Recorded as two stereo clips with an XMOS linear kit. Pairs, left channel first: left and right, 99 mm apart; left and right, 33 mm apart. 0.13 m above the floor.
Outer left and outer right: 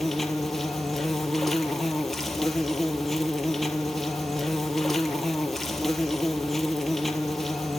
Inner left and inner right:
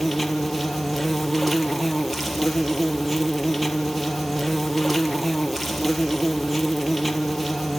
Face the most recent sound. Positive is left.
turn(degrees=5)  # may be behind; listen again after turning